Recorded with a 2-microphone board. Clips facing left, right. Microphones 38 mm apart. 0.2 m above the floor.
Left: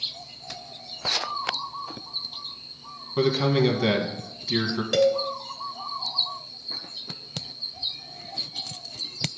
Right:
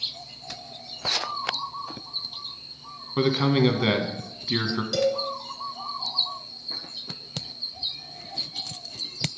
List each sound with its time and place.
3.2 s a man speaking: 20° right (ahead or behind), 1.3 m
4.9 s a cowbell: 50° left (ahead or behind), 0.9 m